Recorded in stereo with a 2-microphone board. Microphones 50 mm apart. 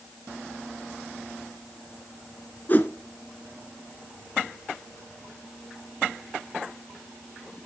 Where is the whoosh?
35° left (ahead or behind), 1.7 m.